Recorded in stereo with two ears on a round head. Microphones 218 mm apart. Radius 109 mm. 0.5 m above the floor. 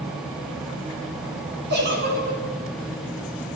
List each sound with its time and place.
1.7 s a giggle: 45° right (ahead or behind), 5.5 m